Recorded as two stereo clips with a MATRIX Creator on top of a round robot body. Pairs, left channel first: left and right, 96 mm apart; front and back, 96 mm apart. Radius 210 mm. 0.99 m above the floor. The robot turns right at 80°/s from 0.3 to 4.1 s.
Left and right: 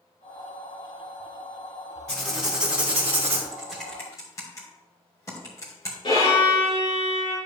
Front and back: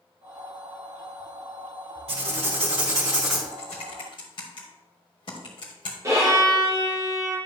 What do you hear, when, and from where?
2.1 s writing: 165° left, 1.5 m; by 3.4 s 85° right, 1.5 m
3.5 s typing on a keyboard: 15° right, 1.3 m; by 5.9 s 30° left, 1.3 m
6.0 s a violin: 125° left, 4 m